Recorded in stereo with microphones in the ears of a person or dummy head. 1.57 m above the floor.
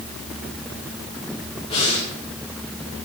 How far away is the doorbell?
I don't hear a doorbell.